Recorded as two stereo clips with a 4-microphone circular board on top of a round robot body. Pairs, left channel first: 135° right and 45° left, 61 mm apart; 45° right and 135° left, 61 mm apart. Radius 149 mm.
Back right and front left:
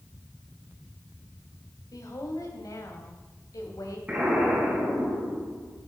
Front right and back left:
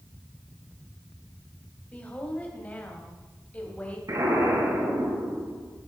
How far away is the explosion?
About 7.5 m.